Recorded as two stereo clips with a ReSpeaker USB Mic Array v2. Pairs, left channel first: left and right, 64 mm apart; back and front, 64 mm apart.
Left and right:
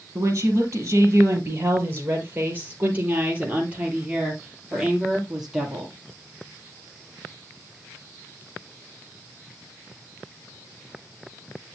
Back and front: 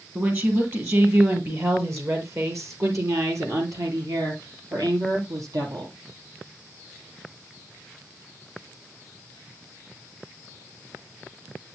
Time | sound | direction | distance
0.1 | a woman speaking | 50° right | 4 m